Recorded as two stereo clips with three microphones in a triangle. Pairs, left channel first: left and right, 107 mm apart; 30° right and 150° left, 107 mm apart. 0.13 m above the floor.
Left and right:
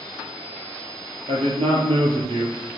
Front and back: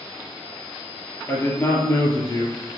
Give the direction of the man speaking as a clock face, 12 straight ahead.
3 o'clock.